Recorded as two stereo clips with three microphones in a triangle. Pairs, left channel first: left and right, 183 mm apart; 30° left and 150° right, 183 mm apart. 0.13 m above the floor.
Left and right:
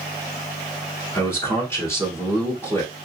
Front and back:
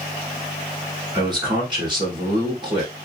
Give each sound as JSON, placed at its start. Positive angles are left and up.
{"t": 1.1, "sound": "a man speaking", "azimuth_deg": 160, "distance_m": 1.5}